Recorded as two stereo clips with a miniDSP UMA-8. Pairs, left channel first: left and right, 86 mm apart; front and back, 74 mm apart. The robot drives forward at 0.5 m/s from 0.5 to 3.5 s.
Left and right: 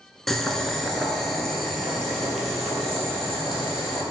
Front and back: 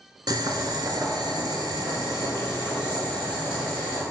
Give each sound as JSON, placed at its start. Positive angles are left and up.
{"t": 0.3, "sound": "boiling", "azimuth_deg": 175, "distance_m": 0.9}